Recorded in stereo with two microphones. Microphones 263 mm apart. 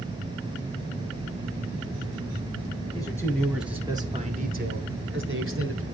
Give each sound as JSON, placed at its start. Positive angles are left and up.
{"t": 2.9, "sound": "a man speaking", "side_deg": 15, "distance_m": 1.4}